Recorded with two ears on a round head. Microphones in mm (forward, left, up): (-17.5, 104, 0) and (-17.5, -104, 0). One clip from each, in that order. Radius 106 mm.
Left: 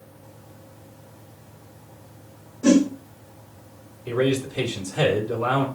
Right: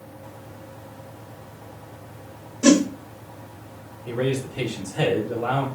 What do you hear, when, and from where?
2.6 s a whoosh: 85° right, 0.9 m
4.1 s a man speaking: 60° left (ahead or behind), 1.6 m